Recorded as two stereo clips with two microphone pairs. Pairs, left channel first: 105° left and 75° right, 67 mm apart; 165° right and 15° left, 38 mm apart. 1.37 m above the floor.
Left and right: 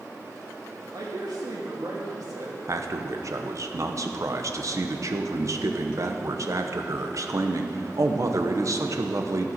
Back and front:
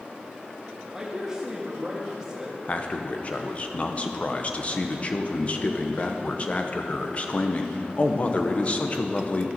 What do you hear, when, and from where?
0.9 s a man speaking: 65° right, 2.5 m
2.7 s a man speaking: 110° right, 0.9 m